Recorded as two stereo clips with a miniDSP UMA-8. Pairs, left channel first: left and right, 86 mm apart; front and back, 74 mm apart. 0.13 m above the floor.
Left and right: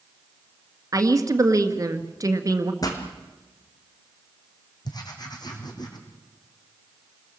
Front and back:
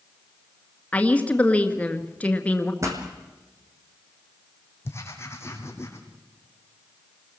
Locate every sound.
0.9 s a woman speaking: 65° right, 1.7 m
2.8 s a pop: 135° left, 3.5 m
4.8 s writing: 55° left, 3.5 m